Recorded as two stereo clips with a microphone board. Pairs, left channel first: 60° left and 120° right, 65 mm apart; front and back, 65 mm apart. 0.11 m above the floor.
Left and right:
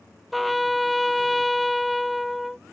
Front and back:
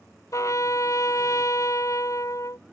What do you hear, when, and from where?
0.3 s a trumpet: 30° right